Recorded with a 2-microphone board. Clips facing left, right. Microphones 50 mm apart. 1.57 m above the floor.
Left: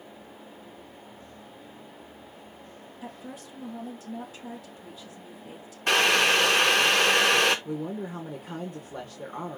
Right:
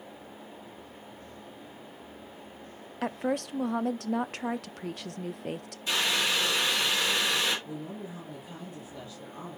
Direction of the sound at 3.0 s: 70° right (ahead or behind).